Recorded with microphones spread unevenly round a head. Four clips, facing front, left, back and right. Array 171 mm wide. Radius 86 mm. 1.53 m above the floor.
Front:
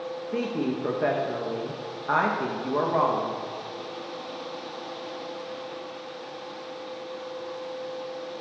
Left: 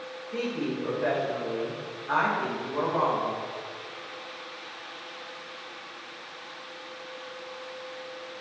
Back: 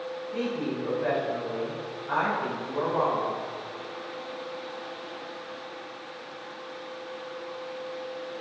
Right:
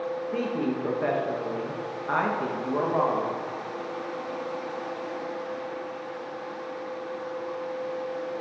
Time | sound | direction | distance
0.3 | a woman speaking | 20° right | 1.8 m